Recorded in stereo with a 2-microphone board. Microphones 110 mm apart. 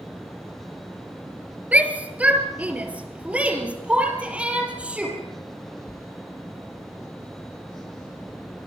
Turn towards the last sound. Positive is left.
turn(degrees=-10)  # may be behind; listen again after turning